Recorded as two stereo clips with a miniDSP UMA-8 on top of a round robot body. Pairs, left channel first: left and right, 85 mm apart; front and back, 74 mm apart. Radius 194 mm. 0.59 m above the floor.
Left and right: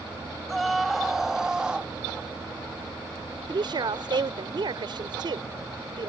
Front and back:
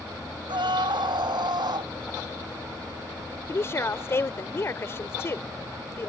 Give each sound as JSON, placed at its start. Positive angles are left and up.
{"t": 0.5, "sound": "a scream", "azimuth_deg": 180}
{"t": 3.5, "sound": "a woman speaking", "azimuth_deg": -55}